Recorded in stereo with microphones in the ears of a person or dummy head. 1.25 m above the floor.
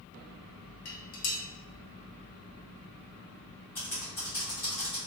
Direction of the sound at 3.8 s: 15° left (ahead or behind).